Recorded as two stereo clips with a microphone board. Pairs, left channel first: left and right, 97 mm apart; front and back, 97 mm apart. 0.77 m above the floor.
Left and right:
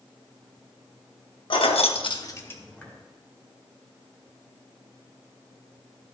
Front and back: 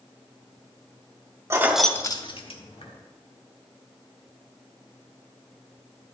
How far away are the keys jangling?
About 1.0 m.